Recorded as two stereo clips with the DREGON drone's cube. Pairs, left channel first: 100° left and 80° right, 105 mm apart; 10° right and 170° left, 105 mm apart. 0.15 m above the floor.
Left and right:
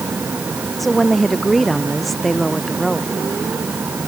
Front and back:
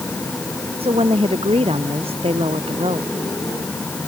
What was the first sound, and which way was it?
A woman speaking, 170° right.